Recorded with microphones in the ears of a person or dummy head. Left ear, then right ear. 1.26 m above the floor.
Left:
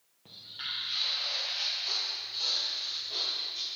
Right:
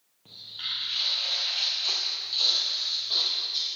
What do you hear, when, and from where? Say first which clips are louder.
0.2 s footsteps: right 4 dB; 5° left (ahead or behind), 1.4 m; by 3.7 s 50° right (ahead or behind), 2 m